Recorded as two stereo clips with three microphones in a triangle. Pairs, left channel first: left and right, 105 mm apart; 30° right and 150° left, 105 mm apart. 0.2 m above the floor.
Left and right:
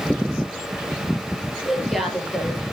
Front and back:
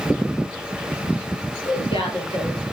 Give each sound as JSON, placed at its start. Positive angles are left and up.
{"t": 1.6, "sound": "a woman speaking", "azimuth_deg": 0, "distance_m": 4.5}